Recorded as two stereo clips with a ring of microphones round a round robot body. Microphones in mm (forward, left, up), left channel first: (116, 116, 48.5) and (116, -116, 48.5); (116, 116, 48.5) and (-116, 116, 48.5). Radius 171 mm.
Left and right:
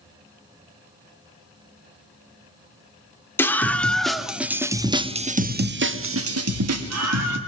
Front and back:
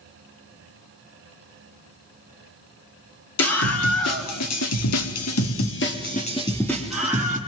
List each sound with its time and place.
3.4 s a scream: 10° left, 2.5 m; by 7.4 s 100° right, 1.6 m